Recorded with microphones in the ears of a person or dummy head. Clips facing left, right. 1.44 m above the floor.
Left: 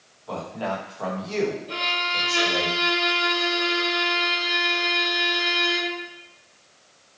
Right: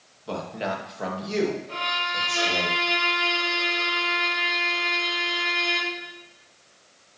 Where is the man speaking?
35° right (ahead or behind), 1.9 m; by 2.7 s 10° left (ahead or behind), 2.5 m.